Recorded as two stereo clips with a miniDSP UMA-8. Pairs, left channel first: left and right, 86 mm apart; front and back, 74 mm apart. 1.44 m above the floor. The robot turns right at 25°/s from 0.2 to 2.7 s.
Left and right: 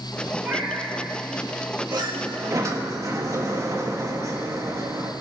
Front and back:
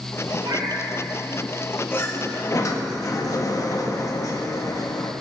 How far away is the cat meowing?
About 3.5 m.